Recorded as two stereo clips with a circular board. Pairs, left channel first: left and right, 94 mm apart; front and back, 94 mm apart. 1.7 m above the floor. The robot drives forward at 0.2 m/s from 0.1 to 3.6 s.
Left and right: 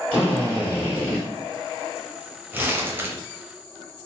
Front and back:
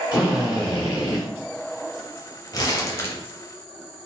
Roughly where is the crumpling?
Ahead right.